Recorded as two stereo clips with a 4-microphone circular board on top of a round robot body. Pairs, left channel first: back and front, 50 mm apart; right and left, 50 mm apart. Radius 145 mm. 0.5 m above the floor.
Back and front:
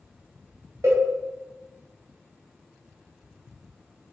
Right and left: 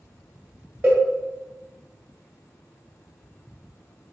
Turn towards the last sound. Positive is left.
turn(degrees=35)